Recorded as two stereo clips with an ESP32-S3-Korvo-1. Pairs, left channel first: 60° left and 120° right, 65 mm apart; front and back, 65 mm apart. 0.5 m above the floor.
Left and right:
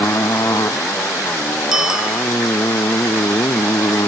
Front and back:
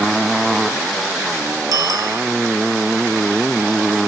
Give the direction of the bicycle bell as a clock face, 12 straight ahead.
7 o'clock.